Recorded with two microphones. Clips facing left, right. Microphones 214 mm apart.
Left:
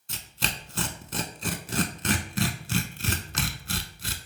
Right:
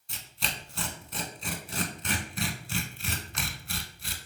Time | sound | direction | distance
0.1 | tearing paper | 80° left | 0.5 m